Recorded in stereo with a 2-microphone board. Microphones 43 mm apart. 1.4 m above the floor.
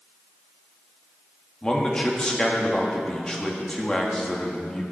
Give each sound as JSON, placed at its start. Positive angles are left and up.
{"t": 1.6, "sound": "a man speaking", "side_deg": 20, "distance_m": 1.9}